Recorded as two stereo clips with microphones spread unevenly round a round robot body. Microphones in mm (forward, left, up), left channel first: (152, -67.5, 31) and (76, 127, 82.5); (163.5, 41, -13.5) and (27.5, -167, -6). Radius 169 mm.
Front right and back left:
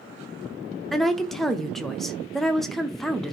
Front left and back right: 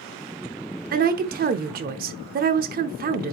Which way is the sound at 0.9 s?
130° right.